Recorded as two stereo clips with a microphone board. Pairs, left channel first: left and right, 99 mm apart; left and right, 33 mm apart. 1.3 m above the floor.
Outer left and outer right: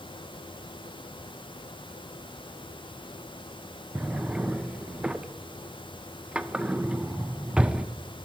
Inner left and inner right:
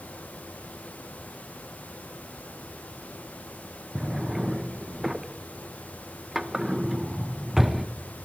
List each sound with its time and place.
4.0 s a drawer: 10° right (ahead or behind), 0.5 m